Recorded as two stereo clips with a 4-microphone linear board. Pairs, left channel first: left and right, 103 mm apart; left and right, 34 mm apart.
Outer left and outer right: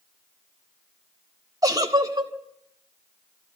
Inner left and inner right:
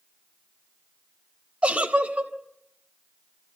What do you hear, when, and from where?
1.6 s a giggle: 40° right (ahead or behind), 1.7 m